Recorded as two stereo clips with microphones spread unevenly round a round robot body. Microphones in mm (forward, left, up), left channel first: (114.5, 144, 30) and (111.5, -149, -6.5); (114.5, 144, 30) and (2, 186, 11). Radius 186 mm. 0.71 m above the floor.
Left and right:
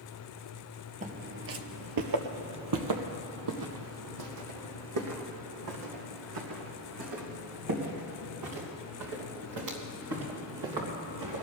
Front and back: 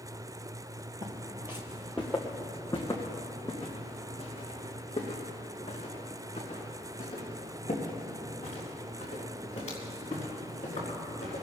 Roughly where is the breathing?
No breathing in this recording.